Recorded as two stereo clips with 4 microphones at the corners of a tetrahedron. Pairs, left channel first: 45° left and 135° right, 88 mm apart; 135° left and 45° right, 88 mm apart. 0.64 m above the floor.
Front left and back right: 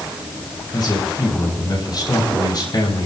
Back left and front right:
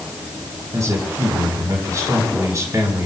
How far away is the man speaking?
About 5 m.